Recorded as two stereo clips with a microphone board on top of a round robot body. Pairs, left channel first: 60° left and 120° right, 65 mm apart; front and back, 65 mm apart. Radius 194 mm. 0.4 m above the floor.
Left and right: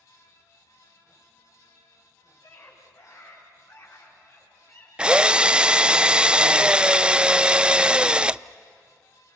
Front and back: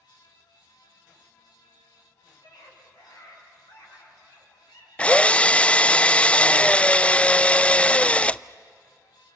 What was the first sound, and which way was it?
A scream, 5° left.